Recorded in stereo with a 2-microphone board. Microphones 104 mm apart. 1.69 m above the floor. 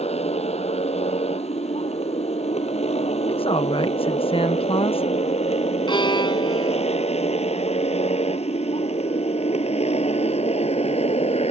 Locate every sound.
0.0 s a motorcycle: 85° left
3.3 s a woman speaking: 60° left (ahead or behind)
5.9 s a violin: 50° left (ahead or behind)